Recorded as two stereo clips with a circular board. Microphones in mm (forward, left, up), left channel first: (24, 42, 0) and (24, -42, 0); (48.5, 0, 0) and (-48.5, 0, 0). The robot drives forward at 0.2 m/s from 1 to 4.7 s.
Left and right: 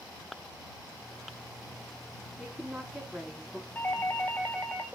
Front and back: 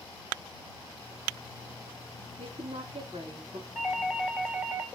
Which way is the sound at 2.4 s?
170° right.